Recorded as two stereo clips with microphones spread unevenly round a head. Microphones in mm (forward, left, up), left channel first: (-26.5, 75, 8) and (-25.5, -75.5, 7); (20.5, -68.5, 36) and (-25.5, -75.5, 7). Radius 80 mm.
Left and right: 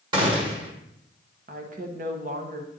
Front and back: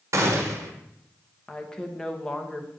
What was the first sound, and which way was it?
A gunshot, 150° right.